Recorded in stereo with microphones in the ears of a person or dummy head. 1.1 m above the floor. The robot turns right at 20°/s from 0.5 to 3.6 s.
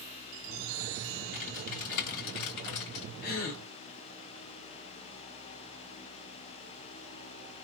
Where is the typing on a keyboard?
40° left, 1.9 m; by 3.0 s 75° left, 1.9 m.